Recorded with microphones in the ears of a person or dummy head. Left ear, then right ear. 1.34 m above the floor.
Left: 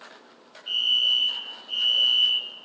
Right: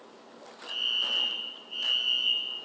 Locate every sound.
0.7 s a fire alarm: 75° left (ahead or behind), 10 m